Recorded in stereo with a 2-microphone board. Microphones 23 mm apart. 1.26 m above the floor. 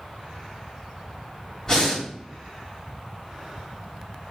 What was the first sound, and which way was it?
Breathing, 20° left (ahead or behind).